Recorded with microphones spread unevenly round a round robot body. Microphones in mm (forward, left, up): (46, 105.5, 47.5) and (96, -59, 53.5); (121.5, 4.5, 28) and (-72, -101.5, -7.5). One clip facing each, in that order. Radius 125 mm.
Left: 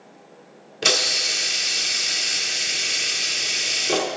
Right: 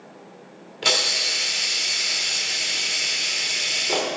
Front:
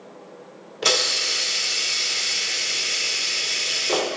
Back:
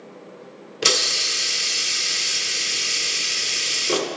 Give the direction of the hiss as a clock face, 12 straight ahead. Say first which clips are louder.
Left 2 dB, front 1 dB; 7 o'clock.